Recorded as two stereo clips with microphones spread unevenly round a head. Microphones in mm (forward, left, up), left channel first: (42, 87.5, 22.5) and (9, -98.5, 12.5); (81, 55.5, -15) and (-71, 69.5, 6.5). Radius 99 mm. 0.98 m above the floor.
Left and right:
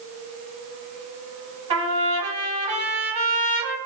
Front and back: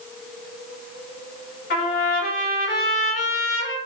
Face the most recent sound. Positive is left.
turn(degrees=-45)